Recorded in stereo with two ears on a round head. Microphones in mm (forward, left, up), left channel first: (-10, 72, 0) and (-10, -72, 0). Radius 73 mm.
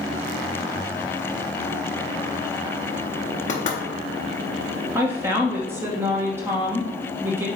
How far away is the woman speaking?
About 0.9 m.